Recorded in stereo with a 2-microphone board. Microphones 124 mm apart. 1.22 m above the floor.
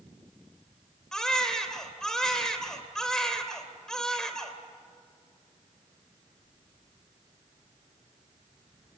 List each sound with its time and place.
1.1 s a baby crying: 5° left (ahead or behind), 3 m